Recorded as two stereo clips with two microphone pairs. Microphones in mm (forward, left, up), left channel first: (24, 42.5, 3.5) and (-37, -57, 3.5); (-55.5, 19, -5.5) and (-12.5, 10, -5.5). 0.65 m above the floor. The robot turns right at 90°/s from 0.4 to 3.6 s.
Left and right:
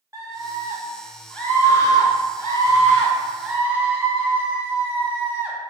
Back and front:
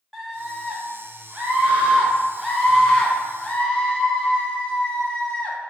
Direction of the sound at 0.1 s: 105° right.